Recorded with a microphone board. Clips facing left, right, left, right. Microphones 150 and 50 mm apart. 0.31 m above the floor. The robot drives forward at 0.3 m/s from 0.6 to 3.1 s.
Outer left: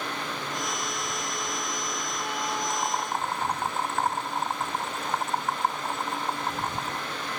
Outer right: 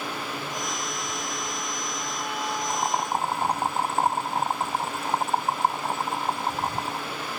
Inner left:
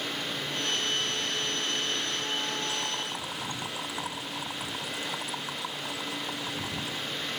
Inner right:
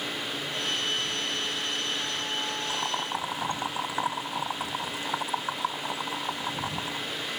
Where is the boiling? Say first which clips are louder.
Outer right 3 dB, inner right 3 dB; 35° right (ahead or behind); by 7.1 s 30° right (ahead or behind).